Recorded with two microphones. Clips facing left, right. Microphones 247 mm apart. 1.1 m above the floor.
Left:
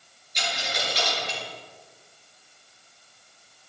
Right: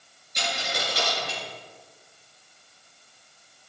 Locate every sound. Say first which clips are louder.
0.3 s a dropped coin: right 1 dB; 55° right (ahead or behind), 5 m